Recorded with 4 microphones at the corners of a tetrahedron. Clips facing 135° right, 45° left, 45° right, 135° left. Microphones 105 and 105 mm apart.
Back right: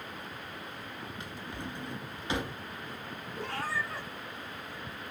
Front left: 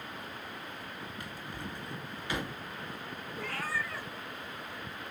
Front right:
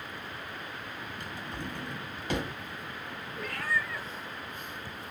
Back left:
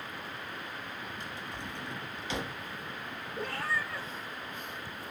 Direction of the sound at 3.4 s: 175° left.